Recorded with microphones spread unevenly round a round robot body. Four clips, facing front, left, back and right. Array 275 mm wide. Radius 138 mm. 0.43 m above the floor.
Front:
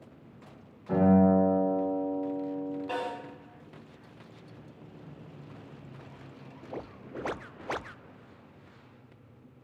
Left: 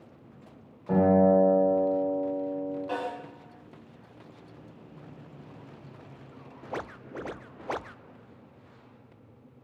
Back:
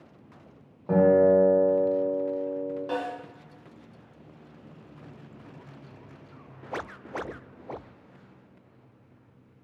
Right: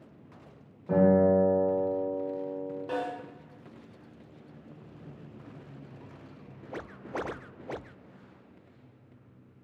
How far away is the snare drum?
About 1.2 m.